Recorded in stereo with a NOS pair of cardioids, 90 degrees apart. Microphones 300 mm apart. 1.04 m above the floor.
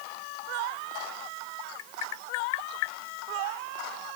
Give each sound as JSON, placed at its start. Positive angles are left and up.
{"t": 1.8, "sound": "tapping", "azimuth_deg": 70}